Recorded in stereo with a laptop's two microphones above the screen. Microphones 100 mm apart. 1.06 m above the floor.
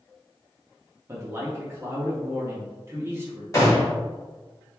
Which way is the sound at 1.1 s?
25° right (ahead or behind).